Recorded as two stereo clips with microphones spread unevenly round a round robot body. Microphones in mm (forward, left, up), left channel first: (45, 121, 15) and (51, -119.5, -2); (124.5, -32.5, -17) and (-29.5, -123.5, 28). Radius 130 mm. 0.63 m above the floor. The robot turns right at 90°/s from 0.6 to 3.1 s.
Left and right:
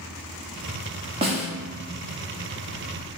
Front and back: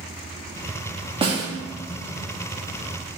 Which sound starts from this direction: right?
A snare drum, at 1.2 s.